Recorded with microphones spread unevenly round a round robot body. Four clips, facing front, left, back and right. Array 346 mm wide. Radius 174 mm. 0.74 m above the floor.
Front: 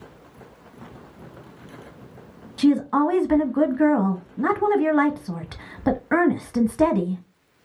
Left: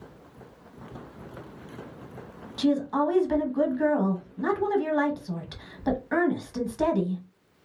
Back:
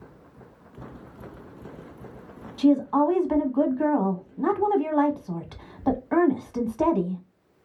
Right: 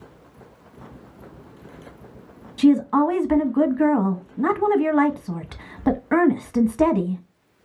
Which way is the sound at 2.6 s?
45° right.